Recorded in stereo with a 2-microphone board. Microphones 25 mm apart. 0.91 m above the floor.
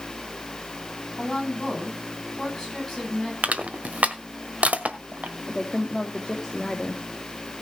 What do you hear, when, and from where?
1.2 s a woman speaking: 10° left (ahead or behind), 8.5 m
3.4 s crushing: 75° right (ahead or behind), 1.5 m
5.5 s a woman speaking: 15° left (ahead or behind), 2.5 m